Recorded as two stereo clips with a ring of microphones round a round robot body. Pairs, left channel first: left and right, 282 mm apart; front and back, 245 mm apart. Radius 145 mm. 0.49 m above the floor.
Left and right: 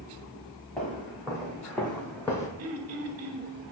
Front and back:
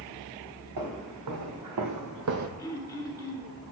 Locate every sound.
0.8 s footsteps: straight behind, 2.5 m; by 2.5 s 170° left, 0.8 m
2.6 s throat clearing: 75° right, 1.1 m